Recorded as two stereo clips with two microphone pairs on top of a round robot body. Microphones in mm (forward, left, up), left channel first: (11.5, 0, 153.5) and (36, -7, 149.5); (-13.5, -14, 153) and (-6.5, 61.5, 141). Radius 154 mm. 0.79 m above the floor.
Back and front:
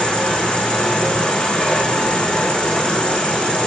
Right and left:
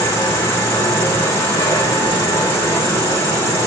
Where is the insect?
155° right, 3.5 m.